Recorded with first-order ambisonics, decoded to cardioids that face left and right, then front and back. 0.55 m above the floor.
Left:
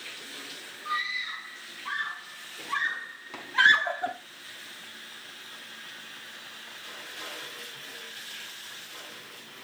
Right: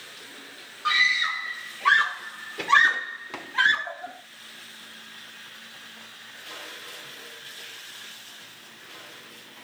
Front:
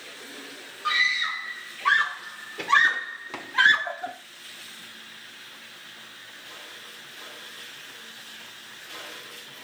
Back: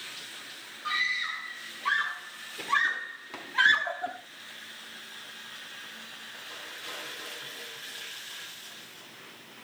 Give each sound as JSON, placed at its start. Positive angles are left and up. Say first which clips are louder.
{"t": 0.8, "sound": "a scream", "louder": "right 10 dB, front 6 dB", "azimuth_deg": -65, "distance_m": 3.0}